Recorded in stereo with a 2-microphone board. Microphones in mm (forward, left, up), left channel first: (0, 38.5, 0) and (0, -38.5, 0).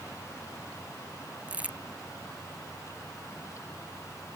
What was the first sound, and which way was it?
Crumpling, 20° right (ahead or behind).